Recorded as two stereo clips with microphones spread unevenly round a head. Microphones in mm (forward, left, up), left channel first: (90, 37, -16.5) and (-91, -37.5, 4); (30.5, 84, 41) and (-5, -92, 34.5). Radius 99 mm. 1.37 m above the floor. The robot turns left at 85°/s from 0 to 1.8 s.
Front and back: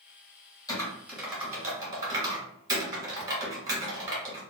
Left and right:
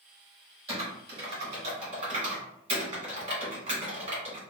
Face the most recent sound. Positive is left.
turn(degrees=-130)